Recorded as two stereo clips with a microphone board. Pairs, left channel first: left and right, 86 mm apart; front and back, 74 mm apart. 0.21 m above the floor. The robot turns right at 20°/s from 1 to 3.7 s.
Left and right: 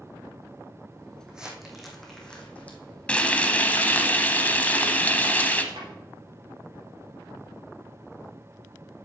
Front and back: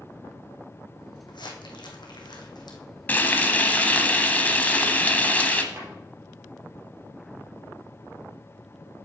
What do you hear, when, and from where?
1.3 s crumpling: 10° right, 2.0 m; by 2.8 s 20° left, 2.0 m
3.1 s frying: 30° left, 1.0 m; by 5.6 s 40° left, 1.0 m
5.7 s a drawer: 120° right, 4 m